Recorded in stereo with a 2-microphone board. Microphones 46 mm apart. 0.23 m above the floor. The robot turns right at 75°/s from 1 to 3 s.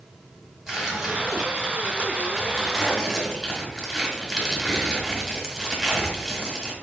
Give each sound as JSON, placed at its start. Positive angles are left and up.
{"t": 0.7, "sound": "tearing paper", "side_deg": -15, "distance_m": 1.3}